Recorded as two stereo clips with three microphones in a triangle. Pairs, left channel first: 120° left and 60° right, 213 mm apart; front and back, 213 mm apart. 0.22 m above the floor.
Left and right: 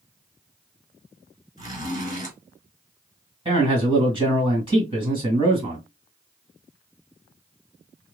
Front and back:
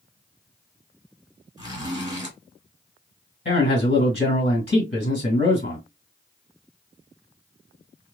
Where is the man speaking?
Straight ahead, 1.8 m.